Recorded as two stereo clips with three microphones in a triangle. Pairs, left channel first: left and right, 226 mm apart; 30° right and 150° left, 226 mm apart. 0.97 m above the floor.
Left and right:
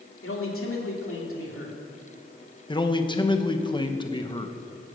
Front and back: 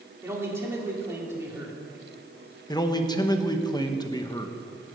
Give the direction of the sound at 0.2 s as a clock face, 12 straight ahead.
10 o'clock.